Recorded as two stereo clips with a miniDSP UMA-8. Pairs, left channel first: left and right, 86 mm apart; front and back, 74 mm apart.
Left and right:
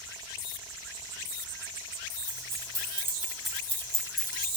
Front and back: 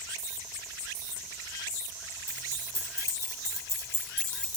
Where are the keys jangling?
50° right, 1.1 m; by 4.6 s 75° left, 0.8 m.